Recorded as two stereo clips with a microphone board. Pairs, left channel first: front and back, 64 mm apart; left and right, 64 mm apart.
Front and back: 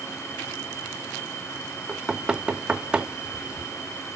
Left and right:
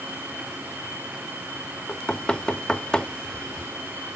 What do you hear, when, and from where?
1.9 s knocking: 135° left, 0.5 m